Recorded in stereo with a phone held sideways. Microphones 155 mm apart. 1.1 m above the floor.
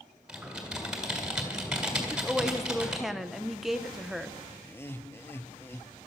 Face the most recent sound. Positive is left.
turn(degrees=15)  # may be behind; listen again after turning